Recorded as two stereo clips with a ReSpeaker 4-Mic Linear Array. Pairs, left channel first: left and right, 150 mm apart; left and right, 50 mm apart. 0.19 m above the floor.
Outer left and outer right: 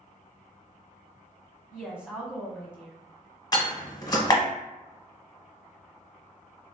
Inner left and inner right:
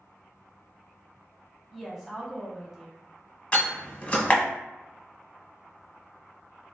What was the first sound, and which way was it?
A woman speaking, 5° right (ahead or behind).